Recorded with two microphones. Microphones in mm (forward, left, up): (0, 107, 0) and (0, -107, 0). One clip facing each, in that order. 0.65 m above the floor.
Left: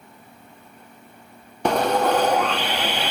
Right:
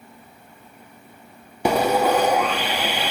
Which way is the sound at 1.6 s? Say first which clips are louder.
Right 1 dB; 5° right (ahead or behind).